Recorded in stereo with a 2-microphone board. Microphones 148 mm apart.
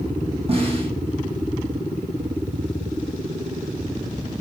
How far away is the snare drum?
About 9 m.